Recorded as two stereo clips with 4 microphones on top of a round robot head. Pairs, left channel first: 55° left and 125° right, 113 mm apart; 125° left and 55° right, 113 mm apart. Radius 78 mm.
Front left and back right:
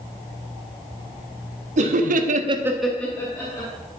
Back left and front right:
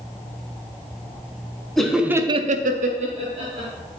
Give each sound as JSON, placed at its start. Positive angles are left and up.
{"t": 1.8, "sound": "laughter", "azimuth_deg": -145, "distance_m": 1.2}